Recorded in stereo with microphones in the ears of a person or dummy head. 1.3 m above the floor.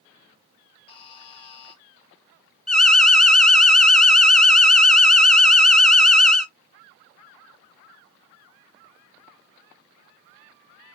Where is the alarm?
5° left (ahead or behind), 0.9 m.